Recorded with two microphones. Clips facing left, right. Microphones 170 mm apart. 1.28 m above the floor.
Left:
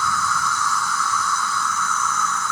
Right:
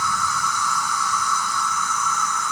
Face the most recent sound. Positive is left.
turn(degrees=-15)  # may be behind; listen again after turning